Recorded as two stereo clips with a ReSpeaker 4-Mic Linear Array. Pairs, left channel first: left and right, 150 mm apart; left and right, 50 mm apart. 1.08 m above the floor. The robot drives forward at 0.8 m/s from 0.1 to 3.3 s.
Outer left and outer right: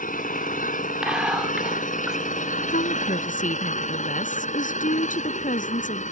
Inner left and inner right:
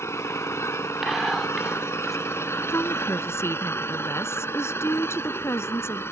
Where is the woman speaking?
70° left (ahead or behind); by 6.0 s 65° left (ahead or behind).